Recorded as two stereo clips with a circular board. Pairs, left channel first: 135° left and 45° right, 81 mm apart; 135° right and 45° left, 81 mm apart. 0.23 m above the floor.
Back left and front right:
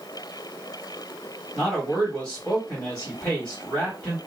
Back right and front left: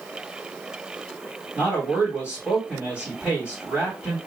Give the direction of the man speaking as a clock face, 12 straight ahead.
9 o'clock.